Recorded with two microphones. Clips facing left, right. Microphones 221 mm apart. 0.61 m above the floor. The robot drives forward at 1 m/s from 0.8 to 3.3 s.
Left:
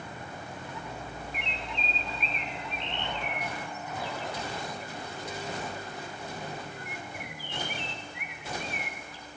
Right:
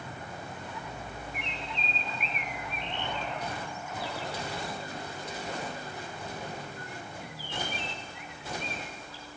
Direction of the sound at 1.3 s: 70° left (ahead or behind).